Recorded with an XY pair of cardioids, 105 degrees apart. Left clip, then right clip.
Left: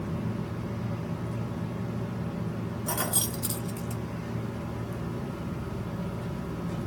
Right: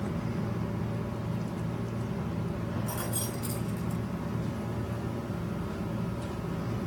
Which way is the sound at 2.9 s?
55° left.